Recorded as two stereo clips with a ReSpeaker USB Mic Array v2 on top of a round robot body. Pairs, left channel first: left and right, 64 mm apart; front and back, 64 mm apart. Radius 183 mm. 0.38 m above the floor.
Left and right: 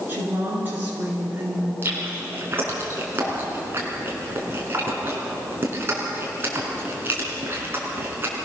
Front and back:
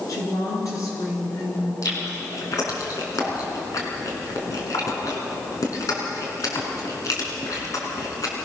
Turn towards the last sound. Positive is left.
turn(degrees=-35)